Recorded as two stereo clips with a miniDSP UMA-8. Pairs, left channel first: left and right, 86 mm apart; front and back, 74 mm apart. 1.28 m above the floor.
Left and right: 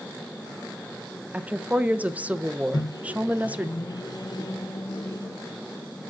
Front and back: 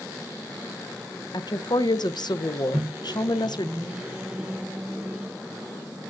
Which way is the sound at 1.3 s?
15° right.